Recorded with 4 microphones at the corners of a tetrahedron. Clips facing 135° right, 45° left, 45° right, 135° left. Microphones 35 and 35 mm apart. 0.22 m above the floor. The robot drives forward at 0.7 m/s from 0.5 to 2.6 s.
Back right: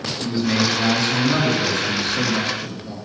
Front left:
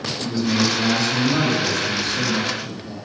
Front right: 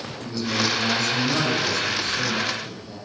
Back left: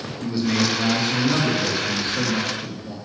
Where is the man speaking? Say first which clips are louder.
Even, back left 3 dB; 160° right, 1.7 m; by 3.0 s 170° right, 3 m.